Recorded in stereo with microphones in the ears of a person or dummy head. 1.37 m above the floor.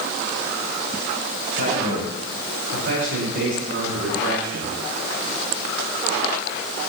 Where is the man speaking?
60° right (ahead or behind), 5.5 m; by 4.8 s 80° right, 7 m.